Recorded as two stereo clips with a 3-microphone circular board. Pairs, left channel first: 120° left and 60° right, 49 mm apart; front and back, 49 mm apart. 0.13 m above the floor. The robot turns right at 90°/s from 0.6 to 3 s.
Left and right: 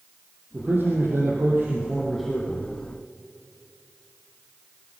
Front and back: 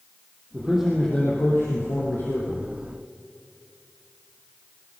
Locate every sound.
0.5 s a man speaking: 115° right, 4.5 m; by 2.7 s 75° left, 4.5 m